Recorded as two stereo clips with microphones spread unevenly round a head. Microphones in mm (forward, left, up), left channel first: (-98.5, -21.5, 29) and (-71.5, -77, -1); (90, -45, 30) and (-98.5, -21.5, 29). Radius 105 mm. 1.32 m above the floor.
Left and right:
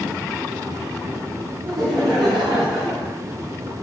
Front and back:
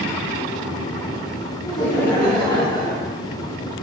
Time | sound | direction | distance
1.6 | laughter | 80° right | 2.5 m